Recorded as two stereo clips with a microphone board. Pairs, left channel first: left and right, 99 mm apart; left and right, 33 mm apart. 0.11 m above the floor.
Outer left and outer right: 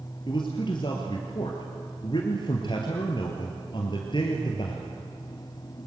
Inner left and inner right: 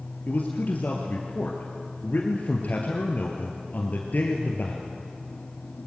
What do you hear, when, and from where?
0.3 s a man speaking: 55° left (ahead or behind), 2.5 m